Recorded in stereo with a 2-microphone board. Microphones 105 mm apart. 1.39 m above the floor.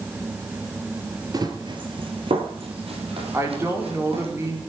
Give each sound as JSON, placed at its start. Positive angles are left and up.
{"t": 1.3, "sound": "running footsteps", "side_deg": -40, "distance_m": 1.8}
{"t": 3.3, "sound": "a woman speaking", "side_deg": -25, "distance_m": 4.5}